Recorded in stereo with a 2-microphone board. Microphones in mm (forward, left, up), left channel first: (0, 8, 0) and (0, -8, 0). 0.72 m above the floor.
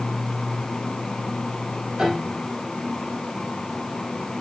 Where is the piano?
55° right (ahead or behind), 5 m.